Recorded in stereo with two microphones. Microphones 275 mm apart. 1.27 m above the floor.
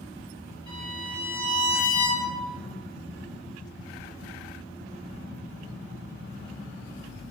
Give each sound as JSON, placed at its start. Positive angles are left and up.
{"t": 0.7, "sound": "a violin", "side_deg": 85, "distance_m": 2.5}